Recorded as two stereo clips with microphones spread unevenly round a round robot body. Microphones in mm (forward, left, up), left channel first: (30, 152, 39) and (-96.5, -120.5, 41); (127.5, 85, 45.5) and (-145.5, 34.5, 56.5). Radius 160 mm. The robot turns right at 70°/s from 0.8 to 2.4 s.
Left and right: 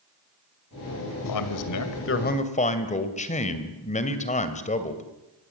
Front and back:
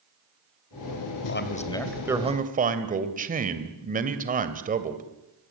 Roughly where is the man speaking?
Ahead left.